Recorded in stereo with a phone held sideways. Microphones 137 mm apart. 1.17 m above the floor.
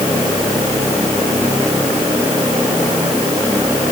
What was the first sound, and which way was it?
Only background noise.